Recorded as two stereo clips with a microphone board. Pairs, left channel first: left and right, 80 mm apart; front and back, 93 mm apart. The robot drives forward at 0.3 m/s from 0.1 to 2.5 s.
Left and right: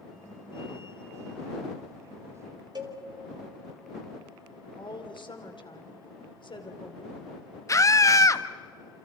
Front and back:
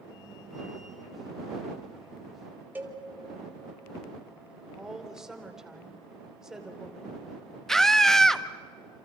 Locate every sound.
2.8 s a cowbell: 110° right, 2.5 m
4.8 s a woman speaking: 95° left, 2.5 m
7.7 s a scream: 85° left, 1.1 m